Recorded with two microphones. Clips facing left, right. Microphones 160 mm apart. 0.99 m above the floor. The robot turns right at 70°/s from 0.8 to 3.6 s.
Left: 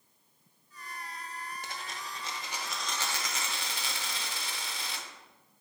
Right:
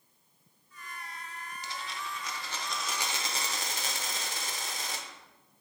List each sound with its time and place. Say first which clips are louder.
1.6 s a dropped coin: right 2 dB; 100° left, 0.9 m; by 5.1 s 120° right, 0.9 m